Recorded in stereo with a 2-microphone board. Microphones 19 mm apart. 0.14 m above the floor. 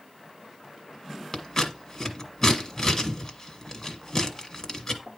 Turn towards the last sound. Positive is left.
turn(degrees=25)  # may be behind; listen again after turning